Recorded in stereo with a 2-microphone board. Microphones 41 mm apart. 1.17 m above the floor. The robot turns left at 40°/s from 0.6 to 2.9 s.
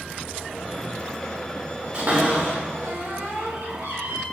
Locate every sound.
1.9 s a cupboard door: 35° right (ahead or behind), 2.5 m; by 4.2 s 70° right (ahead or behind), 2.5 m